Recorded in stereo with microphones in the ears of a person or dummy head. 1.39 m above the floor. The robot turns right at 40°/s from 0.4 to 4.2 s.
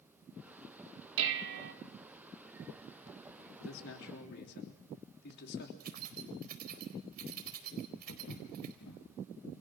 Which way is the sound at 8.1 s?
75° left (ahead or behind).